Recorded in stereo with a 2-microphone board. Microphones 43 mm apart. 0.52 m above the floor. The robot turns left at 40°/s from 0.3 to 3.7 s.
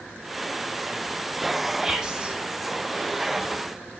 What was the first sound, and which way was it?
Whispering, 10° right (ahead or behind).